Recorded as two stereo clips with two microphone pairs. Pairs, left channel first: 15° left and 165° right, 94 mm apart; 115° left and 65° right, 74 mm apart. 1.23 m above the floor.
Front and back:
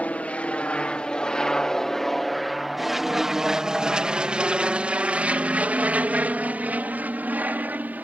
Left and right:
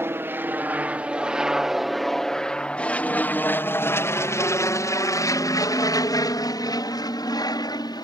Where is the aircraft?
45° right; by 8.1 s 125° left.